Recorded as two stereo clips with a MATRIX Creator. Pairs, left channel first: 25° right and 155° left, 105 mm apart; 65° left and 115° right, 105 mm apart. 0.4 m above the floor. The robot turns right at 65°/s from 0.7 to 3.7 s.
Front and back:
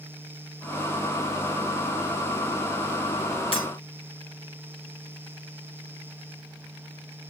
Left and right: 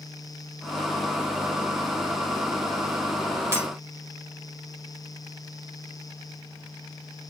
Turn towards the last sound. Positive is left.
turn(degrees=-35)